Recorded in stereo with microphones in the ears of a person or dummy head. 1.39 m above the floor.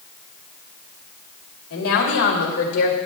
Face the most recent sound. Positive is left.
turn(degrees=60)  # may be behind; listen again after turning